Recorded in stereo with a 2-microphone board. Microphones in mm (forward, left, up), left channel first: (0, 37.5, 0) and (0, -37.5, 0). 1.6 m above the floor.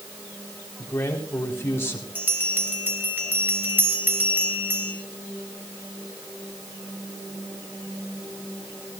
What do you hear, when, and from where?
0.8 s a man speaking: 35° left (ahead or behind), 4 m
2.1 s a bell: 25° right (ahead or behind), 2 m